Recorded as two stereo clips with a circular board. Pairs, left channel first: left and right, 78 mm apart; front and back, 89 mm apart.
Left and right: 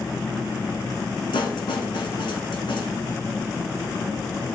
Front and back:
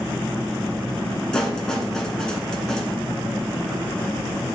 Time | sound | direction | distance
1.3 | a snare drum | 80° left | 2.0 m